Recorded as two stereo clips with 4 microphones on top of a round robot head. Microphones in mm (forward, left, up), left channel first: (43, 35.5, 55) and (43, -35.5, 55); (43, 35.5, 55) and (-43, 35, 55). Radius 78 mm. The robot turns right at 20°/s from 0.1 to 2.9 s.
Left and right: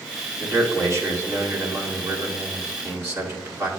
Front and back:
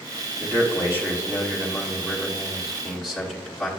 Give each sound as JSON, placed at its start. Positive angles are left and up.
{"t": 0.4, "sound": "a man speaking", "azimuth_deg": -135, "distance_m": 1.7}